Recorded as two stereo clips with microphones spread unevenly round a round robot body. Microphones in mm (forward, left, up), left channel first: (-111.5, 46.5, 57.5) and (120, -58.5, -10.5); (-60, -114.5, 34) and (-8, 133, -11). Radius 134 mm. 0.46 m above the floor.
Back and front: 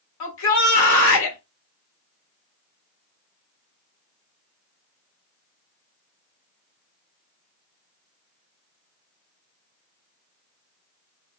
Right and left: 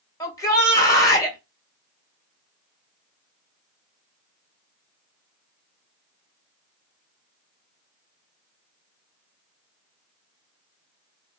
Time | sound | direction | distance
0.2 | a shout | 175° left | 2.5 m